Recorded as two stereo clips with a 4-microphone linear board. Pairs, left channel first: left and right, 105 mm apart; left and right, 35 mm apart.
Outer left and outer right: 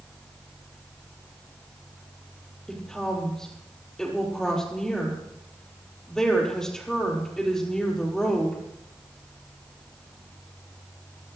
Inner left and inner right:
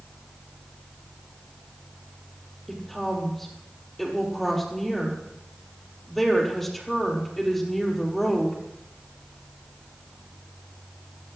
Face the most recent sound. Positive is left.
turn(degrees=5)  # may be behind; listen again after turning